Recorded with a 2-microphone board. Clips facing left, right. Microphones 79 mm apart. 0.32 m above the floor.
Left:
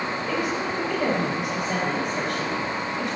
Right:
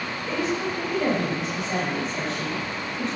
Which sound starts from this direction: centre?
A woman speaking, at 0.3 s.